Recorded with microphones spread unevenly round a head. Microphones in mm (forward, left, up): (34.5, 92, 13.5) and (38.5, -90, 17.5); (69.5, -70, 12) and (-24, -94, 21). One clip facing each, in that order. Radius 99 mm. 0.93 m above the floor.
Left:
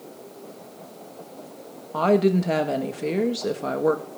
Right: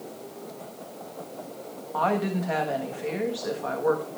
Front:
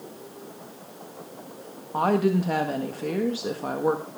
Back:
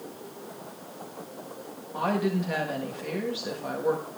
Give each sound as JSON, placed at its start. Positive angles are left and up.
{"t": 1.9, "sound": "a woman speaking", "azimuth_deg": 65, "distance_m": 1.5}